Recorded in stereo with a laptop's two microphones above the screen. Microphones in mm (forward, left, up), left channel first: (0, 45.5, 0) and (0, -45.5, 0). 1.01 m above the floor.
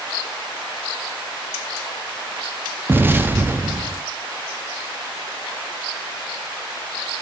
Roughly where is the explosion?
Right.